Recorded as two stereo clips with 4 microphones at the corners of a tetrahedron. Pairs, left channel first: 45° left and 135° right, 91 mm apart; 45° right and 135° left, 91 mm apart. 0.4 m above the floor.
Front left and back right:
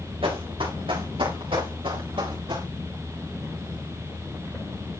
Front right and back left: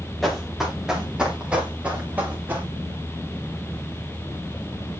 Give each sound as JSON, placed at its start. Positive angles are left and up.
{"t": 0.2, "sound": "running footsteps", "azimuth_deg": -135, "distance_m": 3.5}